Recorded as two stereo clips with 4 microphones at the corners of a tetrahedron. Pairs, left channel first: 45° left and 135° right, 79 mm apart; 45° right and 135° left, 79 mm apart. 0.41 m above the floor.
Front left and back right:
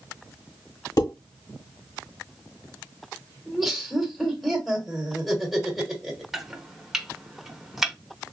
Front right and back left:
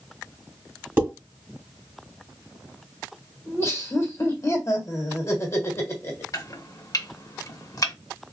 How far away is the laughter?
About 1.5 m.